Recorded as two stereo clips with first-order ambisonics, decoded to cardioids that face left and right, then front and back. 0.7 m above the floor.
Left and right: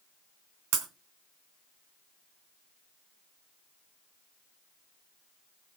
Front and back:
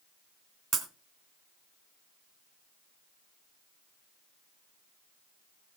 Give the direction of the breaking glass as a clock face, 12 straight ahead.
4 o'clock.